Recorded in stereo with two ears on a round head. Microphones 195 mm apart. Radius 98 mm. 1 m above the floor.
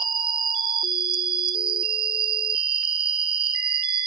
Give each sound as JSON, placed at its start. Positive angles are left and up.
{"t": 0.0, "sound": "an insect", "side_deg": -25, "distance_m": 0.9}